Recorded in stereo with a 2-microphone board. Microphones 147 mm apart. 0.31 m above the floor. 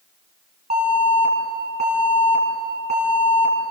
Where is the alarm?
55° right (ahead or behind), 4 m.